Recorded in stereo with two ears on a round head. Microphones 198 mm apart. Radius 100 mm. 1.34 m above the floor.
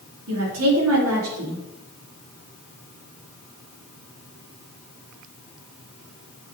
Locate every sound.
0.3 s a woman speaking: 75° right (ahead or behind), 3 m